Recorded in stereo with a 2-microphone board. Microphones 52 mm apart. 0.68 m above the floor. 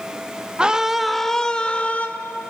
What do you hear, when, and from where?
0.6 s a scream: 20° right (ahead or behind), 1.0 m; by 2.1 s 35° left (ahead or behind), 1.1 m